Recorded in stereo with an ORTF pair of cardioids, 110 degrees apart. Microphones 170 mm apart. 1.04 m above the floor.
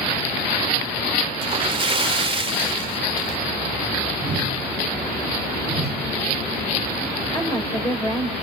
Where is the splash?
30° right, 2 m.